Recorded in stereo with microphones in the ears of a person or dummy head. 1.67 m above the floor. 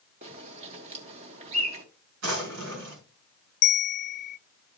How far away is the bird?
About 1.5 m.